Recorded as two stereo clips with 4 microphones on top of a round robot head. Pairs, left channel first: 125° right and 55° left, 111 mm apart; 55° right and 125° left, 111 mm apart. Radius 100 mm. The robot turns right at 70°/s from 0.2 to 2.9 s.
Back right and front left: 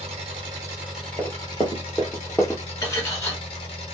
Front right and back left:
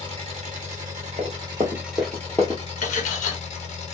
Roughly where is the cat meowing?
I don't hear a cat meowing.